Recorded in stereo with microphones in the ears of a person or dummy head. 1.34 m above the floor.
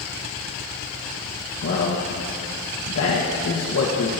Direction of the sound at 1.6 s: 80° left.